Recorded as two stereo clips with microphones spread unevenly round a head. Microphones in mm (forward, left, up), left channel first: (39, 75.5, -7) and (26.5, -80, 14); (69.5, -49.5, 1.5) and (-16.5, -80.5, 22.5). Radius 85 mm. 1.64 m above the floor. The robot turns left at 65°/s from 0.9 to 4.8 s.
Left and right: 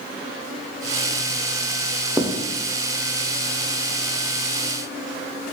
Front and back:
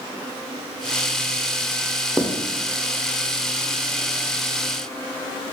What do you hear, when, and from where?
2.2 s writing: 155° right, 0.5 m; by 2.3 s 165° right, 0.5 m